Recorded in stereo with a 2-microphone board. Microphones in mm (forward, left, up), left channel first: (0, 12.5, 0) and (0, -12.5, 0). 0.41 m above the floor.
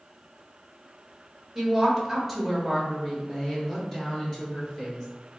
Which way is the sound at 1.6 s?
5° right (ahead or behind).